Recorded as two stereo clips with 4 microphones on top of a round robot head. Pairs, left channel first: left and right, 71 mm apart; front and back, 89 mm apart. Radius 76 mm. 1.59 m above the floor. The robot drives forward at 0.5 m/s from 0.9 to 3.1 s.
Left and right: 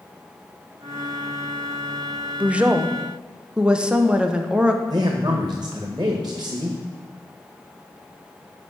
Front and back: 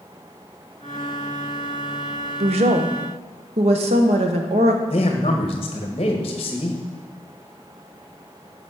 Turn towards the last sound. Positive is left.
turn(degrees=-40)